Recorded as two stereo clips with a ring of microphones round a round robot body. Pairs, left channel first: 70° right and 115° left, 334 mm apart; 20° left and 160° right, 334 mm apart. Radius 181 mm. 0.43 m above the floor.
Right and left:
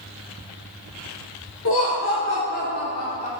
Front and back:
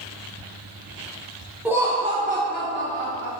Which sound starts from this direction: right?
Laughter, at 1.6 s.